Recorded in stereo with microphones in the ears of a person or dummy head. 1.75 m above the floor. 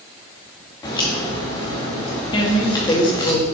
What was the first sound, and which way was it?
A crack, 25° left (ahead or behind).